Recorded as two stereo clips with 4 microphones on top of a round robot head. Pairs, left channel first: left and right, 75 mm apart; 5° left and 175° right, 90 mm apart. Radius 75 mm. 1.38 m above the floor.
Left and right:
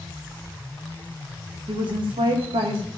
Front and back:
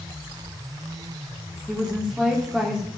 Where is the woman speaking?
95° right, 1.9 m.